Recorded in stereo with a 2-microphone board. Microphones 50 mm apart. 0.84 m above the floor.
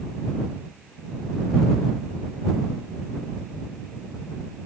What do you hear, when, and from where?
Only background noise.